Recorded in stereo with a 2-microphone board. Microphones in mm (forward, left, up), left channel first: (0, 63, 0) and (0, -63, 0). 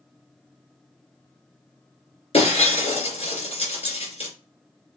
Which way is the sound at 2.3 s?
55° left (ahead or behind).